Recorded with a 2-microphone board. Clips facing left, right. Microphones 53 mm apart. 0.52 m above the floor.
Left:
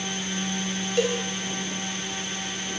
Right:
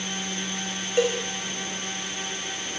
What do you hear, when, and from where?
1.0 s a cowbell: 20° right (ahead or behind), 0.9 m